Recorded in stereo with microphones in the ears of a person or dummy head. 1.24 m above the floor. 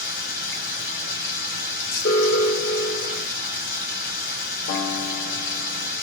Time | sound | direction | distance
0.0 | running water | 60° left (ahead or behind) | 3 m
2.0 | an alarm | 70° left (ahead or behind) | 1.5 m
4.7 | a guitar | 55° left (ahead or behind) | 2.5 m